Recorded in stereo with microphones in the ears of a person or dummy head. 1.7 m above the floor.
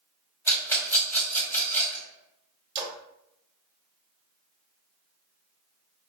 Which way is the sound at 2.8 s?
30° right (ahead or behind).